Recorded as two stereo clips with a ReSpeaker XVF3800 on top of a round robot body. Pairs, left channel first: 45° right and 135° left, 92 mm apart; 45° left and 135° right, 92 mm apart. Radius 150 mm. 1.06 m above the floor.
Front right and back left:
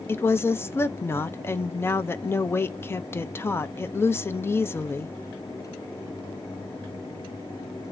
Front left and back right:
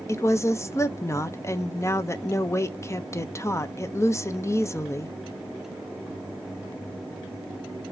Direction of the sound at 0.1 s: 5° left.